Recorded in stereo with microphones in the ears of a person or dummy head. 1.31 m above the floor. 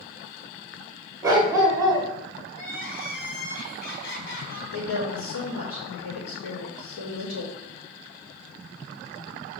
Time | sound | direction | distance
1.2 | a dog barking | 20° right (ahead or behind) | 1.9 m
2.5 | crying | 75° left (ahead or behind) | 3 m
4.7 | a woman speaking | 85° left | 3 m